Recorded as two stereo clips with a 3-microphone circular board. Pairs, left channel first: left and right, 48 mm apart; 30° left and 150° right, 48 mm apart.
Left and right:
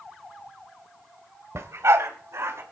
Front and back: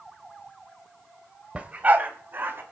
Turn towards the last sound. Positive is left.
turn(degrees=-105)